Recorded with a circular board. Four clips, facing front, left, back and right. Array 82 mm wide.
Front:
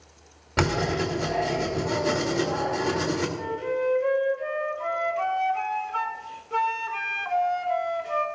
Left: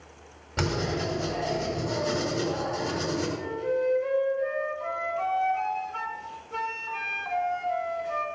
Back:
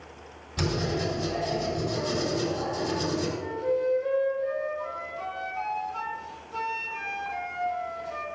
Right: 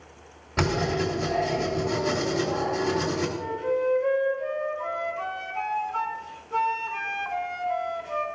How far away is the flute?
About 2 m.